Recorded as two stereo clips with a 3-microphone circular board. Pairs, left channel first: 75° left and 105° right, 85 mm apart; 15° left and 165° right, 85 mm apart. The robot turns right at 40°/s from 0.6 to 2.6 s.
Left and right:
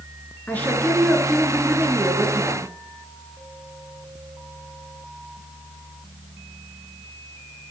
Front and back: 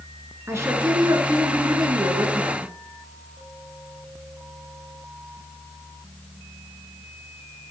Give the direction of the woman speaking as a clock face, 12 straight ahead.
7 o'clock.